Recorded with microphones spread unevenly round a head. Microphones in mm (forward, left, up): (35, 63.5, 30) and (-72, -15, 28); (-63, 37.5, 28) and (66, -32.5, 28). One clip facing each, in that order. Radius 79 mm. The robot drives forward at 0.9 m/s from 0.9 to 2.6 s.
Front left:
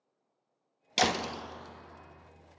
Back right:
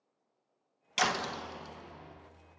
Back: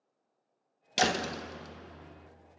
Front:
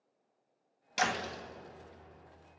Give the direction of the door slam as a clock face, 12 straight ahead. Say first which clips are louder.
Front left 3 dB, back 4 dB; 9 o'clock.